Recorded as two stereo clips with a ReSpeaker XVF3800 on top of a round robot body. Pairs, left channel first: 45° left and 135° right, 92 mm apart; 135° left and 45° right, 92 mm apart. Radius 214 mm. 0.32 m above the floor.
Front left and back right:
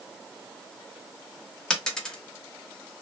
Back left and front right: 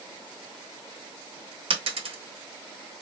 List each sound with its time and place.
1.7 s a dropped coin: 35° right, 0.9 m